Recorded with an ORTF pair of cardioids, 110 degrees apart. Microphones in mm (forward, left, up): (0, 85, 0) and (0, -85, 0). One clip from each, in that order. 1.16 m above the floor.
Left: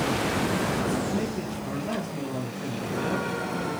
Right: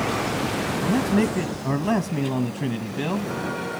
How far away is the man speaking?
About 1.0 m.